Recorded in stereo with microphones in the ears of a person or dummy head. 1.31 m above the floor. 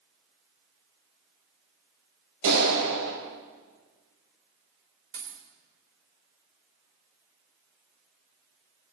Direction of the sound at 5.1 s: 40° right (ahead or behind).